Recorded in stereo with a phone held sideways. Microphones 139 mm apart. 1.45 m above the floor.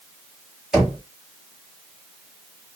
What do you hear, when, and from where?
0.7 s knocking: 5° right (ahead or behind), 3 m